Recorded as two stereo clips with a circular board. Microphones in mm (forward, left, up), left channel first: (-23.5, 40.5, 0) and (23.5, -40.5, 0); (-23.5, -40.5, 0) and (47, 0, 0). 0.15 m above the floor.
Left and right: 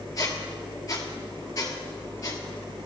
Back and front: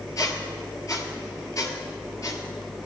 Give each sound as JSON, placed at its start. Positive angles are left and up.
{"t": 0.2, "sound": "a squeak", "azimuth_deg": 165, "distance_m": 1.3}